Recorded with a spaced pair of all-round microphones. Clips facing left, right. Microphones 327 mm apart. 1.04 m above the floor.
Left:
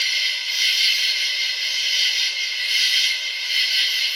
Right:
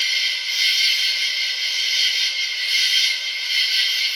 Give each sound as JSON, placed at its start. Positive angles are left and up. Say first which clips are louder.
{"t": 0.0, "sound": "an insect", "louder": "even", "side_deg": -5, "distance_m": 1.2}